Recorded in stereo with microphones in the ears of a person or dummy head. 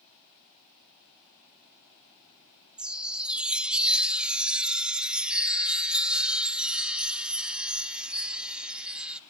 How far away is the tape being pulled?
I don't hear tape being pulled.